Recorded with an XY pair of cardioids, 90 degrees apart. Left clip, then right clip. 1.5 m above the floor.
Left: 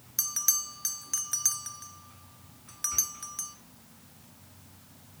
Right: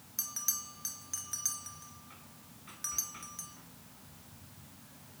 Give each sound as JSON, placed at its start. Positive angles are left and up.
{"t": 0.2, "sound": "a bell", "azimuth_deg": 55, "distance_m": 0.5}